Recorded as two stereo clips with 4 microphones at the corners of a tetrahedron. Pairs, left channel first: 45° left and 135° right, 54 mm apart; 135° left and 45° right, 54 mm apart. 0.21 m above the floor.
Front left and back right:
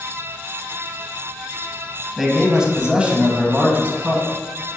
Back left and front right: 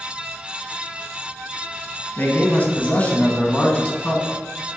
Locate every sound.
2.2 s a man speaking: 145° left, 1.5 m; by 4.3 s 155° right, 1.7 m